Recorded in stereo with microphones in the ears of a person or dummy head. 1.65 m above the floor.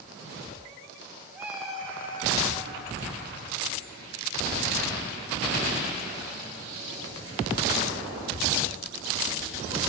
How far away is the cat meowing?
About 1.9 m.